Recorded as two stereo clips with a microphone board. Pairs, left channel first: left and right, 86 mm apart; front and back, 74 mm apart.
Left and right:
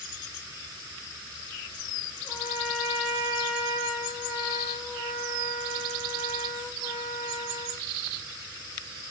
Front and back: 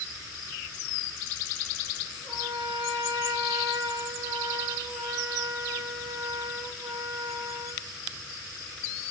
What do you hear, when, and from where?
2.2 s a trumpet: 140° left, 9.5 m